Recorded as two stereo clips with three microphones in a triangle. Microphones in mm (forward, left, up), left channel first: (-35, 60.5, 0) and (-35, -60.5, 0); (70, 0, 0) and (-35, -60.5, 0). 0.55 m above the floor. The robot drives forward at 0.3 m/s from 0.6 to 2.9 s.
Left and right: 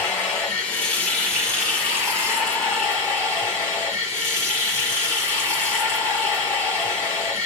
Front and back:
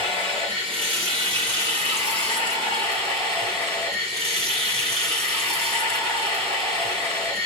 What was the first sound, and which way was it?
Running water, 170° left.